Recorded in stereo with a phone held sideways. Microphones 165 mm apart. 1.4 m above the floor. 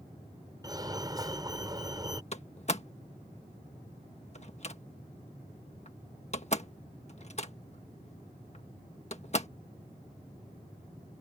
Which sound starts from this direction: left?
A door slam, at 2.3 s.